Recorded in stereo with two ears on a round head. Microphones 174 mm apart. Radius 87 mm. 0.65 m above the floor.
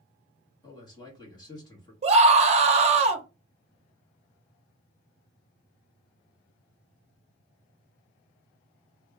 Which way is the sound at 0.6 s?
20° left (ahead or behind).